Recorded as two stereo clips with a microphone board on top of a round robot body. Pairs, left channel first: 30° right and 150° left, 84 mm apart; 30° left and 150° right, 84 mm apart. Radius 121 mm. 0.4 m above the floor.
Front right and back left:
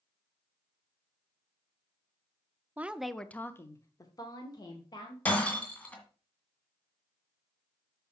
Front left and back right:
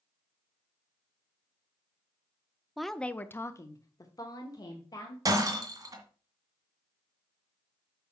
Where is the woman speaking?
125° left, 0.8 m; by 5.2 s 5° right, 2 m.